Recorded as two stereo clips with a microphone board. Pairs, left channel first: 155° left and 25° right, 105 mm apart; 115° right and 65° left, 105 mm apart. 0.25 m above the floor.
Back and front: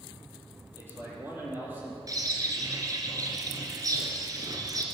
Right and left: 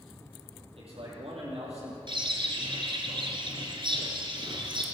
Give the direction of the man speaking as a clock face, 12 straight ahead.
10 o'clock.